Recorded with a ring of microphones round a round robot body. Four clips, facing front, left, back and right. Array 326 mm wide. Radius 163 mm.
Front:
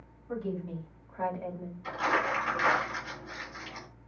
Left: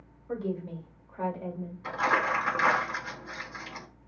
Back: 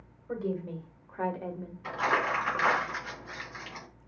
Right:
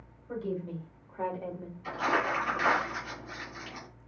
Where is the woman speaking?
140° left, 2 m; by 1.7 s 135° right, 1.5 m.